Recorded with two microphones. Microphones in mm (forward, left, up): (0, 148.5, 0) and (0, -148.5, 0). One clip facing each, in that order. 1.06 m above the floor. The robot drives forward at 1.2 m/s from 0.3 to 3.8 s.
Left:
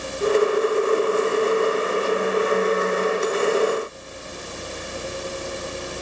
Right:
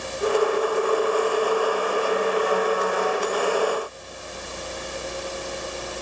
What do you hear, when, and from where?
Only background noise.